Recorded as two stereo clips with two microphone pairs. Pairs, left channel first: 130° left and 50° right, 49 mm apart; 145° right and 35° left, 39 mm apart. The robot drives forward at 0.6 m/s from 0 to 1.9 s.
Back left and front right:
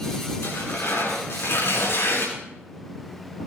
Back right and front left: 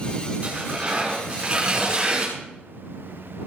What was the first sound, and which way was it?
Tearing paper, 100° left.